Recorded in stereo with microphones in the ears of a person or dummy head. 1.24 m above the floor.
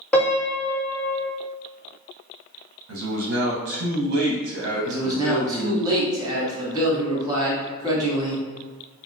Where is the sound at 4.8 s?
25° right (ahead or behind), 1.5 m.